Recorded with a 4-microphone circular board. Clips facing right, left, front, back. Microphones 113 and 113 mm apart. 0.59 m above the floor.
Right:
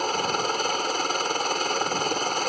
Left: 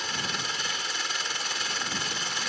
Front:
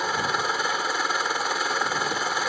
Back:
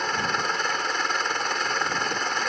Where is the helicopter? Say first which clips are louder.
Right 10 dB, front 1 dB; 80° right.